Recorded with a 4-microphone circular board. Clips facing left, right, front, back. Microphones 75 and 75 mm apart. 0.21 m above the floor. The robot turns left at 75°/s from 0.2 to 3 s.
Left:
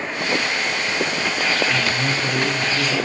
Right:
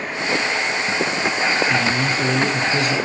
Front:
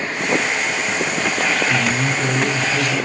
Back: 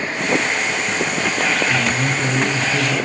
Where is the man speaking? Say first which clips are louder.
Right 2 dB, even; 40° right, 4.5 m; by 3.0 s 135° right, 4.5 m.